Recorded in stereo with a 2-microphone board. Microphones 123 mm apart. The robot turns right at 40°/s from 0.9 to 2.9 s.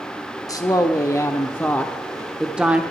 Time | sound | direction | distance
0.5 | a woman speaking | 125° left | 0.8 m